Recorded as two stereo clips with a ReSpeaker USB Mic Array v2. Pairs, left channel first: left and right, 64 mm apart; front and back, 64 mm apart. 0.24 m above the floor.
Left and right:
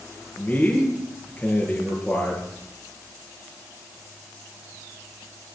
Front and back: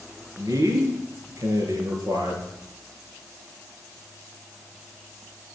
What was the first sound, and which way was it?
A man speaking, 155° left.